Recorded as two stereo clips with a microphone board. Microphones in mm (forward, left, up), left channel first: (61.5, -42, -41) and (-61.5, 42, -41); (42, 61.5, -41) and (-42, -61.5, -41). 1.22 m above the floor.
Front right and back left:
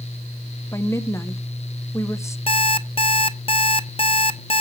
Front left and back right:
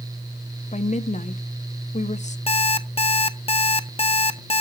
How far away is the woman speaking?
About 0.7 m.